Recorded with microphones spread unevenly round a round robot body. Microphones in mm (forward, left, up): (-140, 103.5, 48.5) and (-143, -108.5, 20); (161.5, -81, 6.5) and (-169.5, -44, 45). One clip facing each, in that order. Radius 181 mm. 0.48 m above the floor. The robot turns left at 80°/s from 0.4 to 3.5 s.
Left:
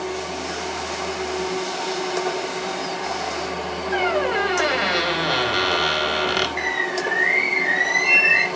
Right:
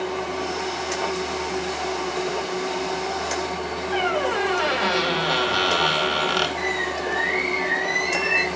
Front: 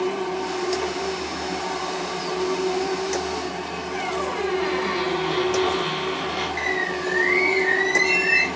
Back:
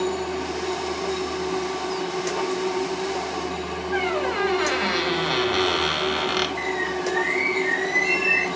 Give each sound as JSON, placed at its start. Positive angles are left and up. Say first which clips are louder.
{"t": 3.9, "sound": "a squeak", "louder": "left 2 dB, back 3 dB", "azimuth_deg": 165, "distance_m": 1.0}
{"t": 6.6, "sound": "a bird", "louder": "even, back 1 dB", "azimuth_deg": 65, "distance_m": 0.6}